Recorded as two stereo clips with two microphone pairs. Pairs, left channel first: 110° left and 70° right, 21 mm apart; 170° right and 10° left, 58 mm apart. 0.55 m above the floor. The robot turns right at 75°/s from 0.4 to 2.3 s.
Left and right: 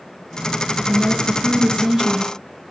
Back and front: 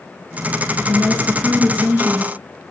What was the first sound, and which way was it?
A woman speaking, 115° right.